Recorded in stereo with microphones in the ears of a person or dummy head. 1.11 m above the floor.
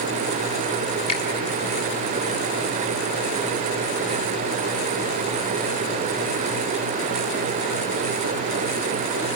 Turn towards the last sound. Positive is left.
turn(degrees=25)  # may be behind; listen again after turning